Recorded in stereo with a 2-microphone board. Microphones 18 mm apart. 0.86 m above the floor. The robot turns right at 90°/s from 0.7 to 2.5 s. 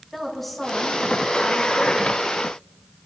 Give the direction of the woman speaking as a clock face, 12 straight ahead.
12 o'clock.